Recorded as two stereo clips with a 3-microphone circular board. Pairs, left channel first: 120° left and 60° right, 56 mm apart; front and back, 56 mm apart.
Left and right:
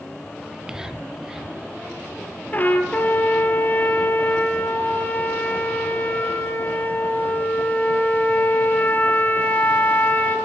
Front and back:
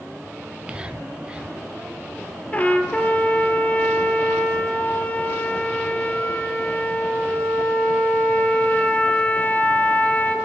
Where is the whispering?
130° right, 1.9 m.